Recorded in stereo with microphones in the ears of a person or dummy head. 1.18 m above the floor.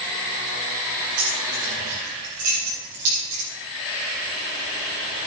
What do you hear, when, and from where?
1.2 s keys jangling: 45° right (ahead or behind), 9.5 m